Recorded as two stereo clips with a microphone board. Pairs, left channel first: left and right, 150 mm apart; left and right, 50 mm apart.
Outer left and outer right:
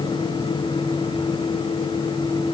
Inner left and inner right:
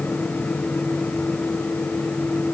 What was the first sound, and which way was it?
Only background noise.